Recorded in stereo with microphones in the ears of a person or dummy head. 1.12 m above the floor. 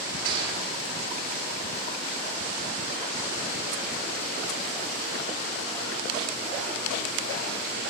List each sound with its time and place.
0.2 s a gunshot: 70° right (ahead or behind), 3 m